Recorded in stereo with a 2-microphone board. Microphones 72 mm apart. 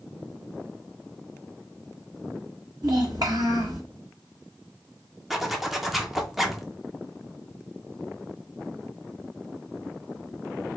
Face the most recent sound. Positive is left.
turn(degrees=-5)  # may be behind; listen again after turning